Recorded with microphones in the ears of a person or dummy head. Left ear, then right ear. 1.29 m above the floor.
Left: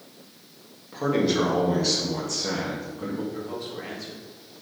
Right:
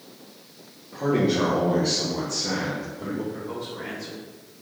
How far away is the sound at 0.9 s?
About 2 m.